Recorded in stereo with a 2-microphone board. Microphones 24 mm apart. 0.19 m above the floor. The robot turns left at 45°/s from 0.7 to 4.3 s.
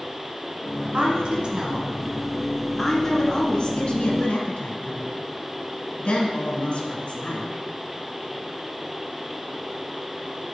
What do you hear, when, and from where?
0.9 s a woman speaking: 55° right (ahead or behind), 1.6 m; by 7.5 s 45° left (ahead or behind), 1.6 m